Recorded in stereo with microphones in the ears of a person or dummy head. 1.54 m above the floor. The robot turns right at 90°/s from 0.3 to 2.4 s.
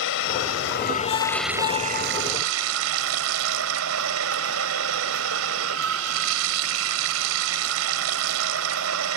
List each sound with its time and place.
0.0 s running water: 75° left; by 9.2 s 95° right